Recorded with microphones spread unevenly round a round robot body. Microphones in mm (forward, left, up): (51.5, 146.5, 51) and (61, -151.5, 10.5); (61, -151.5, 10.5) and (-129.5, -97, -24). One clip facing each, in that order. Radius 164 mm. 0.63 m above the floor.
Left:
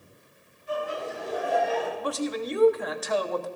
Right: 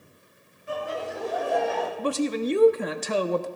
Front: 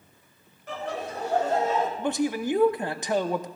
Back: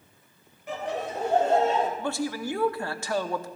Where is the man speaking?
90° right, 0.7 m.